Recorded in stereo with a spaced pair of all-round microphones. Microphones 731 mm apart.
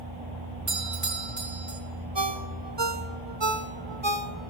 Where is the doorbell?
75° right (ahead or behind), 4.5 m.